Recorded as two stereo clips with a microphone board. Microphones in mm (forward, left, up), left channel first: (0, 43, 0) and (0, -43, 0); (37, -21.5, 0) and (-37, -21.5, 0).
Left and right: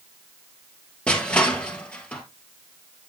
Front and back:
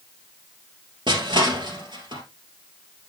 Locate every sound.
1.1 s crushing: 165° left, 2.5 m